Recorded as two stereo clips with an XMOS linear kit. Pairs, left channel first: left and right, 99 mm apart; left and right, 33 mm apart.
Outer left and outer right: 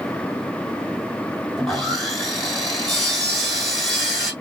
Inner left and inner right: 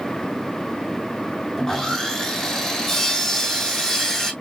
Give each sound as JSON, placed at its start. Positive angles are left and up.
{"t": 1.6, "sound": "sawing", "side_deg": 5, "distance_m": 3.0}